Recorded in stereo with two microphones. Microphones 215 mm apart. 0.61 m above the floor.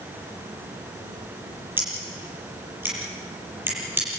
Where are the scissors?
10° right (ahead or behind), 7.5 m.